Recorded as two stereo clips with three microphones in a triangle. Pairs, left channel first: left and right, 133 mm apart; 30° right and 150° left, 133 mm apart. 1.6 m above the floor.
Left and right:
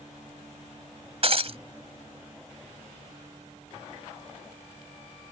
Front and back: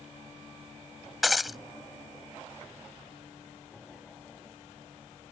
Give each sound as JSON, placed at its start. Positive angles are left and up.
{"t": 1.2, "sound": "breaking glass", "azimuth_deg": -120}